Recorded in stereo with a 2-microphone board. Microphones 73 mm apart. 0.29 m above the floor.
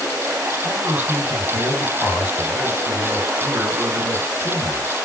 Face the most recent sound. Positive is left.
turn(degrees=-20)  # may be behind; listen again after turning